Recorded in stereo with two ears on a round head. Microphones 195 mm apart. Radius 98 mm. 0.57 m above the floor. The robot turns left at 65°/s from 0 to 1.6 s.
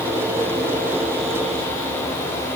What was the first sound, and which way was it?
Only background noise.